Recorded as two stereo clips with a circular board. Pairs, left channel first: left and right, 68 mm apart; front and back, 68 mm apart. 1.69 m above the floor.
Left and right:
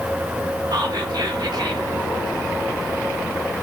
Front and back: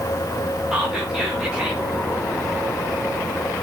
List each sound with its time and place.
0.7 s whispering: 100° right, 4 m